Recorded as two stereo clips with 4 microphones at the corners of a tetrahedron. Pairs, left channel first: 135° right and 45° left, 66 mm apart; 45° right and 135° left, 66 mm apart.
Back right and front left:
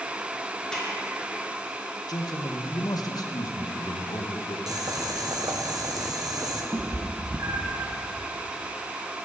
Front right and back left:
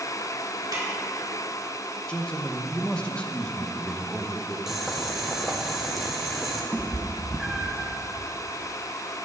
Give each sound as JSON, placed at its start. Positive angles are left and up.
{"t": 0.7, "sound": "a snare drum", "azimuth_deg": 145, "distance_m": 2.5}
{"t": 2.1, "sound": "a man speaking", "azimuth_deg": -120, "distance_m": 0.9}
{"t": 4.7, "sound": "boiling", "azimuth_deg": 50, "distance_m": 1.1}
{"t": 6.7, "sound": "a cat meowing", "azimuth_deg": 55, "distance_m": 0.9}